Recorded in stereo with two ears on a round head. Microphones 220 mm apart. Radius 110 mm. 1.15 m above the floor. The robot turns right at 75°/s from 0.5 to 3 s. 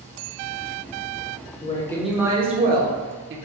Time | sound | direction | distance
1.6 | a woman speaking | 145° left | 0.7 m